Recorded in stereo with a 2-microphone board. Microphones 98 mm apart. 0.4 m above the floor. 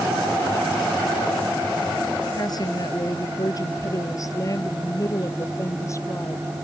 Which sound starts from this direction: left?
A woman speaking, at 2.4 s.